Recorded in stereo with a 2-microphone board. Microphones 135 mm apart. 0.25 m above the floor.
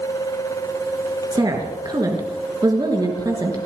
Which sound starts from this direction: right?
A woman speaking, at 1.3 s.